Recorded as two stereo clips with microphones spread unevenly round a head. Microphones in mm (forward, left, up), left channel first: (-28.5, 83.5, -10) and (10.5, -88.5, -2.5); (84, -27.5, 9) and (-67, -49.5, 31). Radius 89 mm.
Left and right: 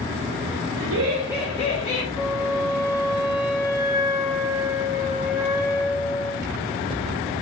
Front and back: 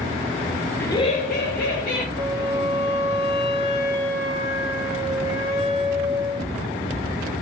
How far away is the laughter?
About 0.7 m.